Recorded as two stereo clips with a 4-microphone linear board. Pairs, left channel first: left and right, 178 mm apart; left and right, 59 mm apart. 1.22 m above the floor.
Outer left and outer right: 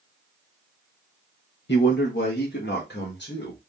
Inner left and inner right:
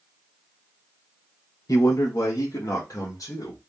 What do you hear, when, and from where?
1.7 s a man speaking: 80° left, 0.7 m; by 3.6 s 85° left, 2 m